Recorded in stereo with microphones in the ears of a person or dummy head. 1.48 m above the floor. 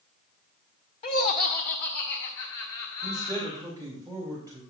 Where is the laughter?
35° left (ahead or behind), 0.6 m; by 3.7 s 65° left (ahead or behind), 2 m.